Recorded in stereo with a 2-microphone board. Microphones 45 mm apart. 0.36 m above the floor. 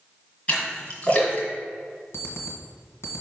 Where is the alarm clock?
75° left (ahead or behind), 1.8 m.